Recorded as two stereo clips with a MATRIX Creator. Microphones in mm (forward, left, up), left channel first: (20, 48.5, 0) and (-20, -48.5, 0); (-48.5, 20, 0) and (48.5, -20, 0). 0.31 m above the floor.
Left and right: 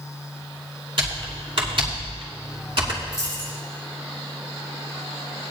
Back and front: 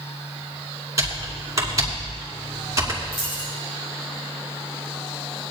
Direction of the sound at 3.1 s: 145° right.